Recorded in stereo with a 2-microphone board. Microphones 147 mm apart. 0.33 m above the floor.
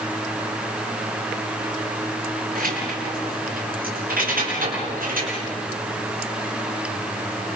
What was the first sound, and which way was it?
Keys jangling, 80° right.